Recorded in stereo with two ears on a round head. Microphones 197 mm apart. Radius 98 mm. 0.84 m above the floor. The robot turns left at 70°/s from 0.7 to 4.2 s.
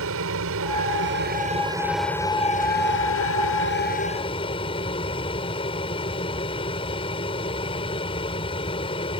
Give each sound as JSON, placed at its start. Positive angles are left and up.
{"t": 0.0, "sound": "an aircraft", "azimuth_deg": -90}